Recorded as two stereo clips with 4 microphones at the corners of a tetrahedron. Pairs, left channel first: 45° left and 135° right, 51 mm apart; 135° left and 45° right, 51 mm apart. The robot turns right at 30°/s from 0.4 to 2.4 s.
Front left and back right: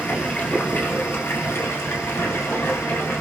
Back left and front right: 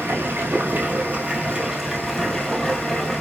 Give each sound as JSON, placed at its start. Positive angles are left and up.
{"t": 0.0, "sound": "running water", "azimuth_deg": -10, "distance_m": 1.2}